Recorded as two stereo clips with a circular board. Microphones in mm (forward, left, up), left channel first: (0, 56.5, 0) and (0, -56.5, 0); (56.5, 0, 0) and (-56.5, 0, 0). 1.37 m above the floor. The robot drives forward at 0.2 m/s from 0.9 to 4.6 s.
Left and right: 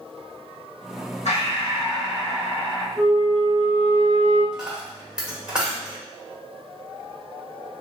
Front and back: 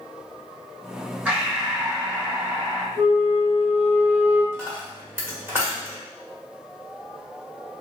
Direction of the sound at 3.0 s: 170° left.